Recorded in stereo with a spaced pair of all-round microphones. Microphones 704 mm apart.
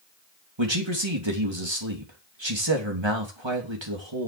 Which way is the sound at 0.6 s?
40° right (ahead or behind).